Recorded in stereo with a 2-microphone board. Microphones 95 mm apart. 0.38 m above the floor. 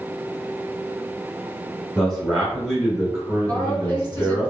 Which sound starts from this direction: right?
A woman speaking, at 3.5 s.